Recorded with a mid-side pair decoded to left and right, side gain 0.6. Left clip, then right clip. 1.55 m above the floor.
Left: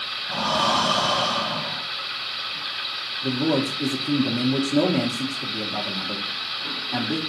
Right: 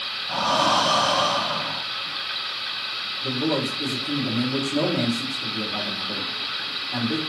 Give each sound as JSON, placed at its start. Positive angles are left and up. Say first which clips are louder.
{"t": 0.3, "sound": "breathing", "louder": "right 1 dB", "azimuth_deg": -10, "distance_m": 1.1}
{"t": 3.2, "sound": "a man speaking", "louder": "left 2 dB", "azimuth_deg": 30, "distance_m": 0.9}